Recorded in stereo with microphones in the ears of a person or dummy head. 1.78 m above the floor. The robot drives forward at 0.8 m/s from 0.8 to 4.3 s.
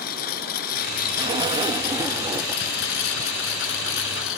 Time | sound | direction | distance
0.0 | a lawn mower | 55° left (ahead or behind) | ?
1.2 | a zipper | 25° right (ahead or behind) | ?